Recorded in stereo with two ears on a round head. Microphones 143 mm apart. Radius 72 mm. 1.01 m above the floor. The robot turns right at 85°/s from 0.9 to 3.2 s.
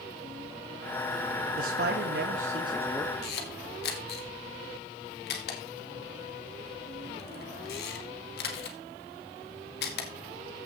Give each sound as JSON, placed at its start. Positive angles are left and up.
{"t": 1.6, "sound": "a man speaking", "azimuth_deg": -125, "distance_m": 1.4}
{"t": 3.2, "sound": "a camera shutter", "side_deg": 70, "distance_m": 2.5}